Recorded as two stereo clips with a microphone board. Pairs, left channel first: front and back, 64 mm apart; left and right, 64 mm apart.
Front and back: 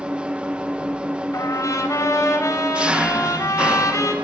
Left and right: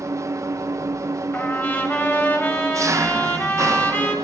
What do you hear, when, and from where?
0.0 s an engine running: 110° right, 0.9 m
1.3 s a trumpet: 35° left, 5.5 m